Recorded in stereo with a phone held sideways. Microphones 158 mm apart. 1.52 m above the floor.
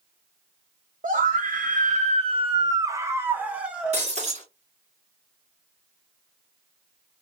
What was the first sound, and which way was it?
A scream, 55° right (ahead or behind).